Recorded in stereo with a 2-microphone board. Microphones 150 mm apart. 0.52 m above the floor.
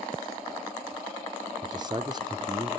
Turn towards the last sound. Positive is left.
turn(degrees=-30)  # may be behind; listen again after turning